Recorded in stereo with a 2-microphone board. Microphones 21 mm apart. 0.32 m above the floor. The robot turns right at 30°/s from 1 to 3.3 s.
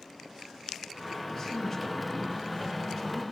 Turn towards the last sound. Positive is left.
turn(degrees=-145)